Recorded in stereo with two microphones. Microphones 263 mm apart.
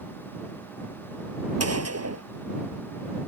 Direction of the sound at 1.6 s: 70° right (ahead or behind).